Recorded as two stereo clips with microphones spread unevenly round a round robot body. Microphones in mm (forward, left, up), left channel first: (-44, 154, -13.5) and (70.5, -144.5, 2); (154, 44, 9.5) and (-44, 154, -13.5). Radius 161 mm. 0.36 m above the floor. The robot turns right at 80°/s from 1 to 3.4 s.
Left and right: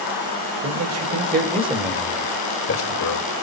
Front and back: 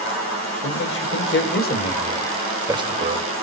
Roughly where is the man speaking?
Ahead right.